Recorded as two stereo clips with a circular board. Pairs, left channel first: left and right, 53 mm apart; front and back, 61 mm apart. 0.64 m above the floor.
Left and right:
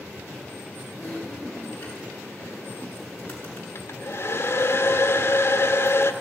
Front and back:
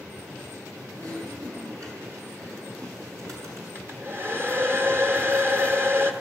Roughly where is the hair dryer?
Behind left.